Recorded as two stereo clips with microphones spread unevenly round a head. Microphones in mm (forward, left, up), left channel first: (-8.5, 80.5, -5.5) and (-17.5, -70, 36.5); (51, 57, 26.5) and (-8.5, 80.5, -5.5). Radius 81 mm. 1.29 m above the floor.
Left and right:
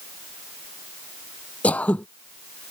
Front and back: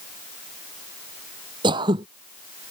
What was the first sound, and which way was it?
Throat clearing, 170° left.